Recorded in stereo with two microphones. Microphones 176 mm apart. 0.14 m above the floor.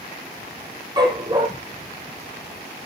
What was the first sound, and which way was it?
A dog barking, 25° right (ahead or behind).